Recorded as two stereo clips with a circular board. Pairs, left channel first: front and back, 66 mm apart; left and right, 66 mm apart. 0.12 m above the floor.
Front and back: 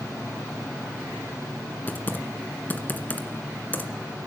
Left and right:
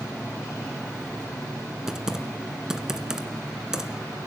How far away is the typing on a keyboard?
About 1.7 m.